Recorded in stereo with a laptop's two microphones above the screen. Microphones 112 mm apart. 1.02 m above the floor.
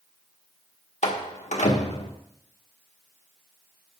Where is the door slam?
75° left (ahead or behind), 1.5 m.